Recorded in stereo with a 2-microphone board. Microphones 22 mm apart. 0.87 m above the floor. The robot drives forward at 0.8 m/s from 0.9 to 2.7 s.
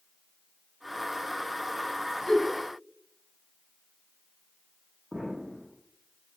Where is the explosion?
40° right (ahead or behind), 1.2 m.